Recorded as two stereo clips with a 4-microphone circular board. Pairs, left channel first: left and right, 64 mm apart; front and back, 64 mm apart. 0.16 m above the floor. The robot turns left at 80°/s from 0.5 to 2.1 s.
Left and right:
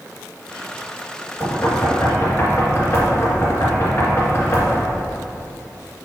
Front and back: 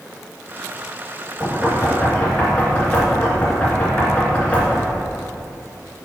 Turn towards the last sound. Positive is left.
turn(degrees=60)